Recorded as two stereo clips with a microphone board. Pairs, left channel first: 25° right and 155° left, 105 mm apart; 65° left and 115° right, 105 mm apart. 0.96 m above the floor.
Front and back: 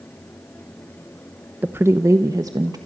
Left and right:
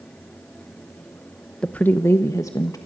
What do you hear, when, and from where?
1.6 s a woman speaking: 130° left, 0.8 m; by 2.8 s 115° left, 1.4 m